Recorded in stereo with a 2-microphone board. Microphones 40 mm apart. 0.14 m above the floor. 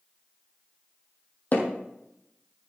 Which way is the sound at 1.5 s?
45° left (ahead or behind).